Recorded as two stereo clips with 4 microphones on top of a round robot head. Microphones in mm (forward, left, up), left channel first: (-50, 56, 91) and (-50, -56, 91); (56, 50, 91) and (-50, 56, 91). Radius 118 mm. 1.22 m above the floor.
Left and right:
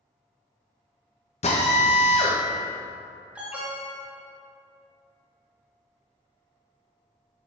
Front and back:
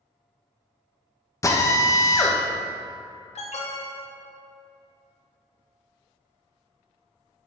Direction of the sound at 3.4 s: 10° right.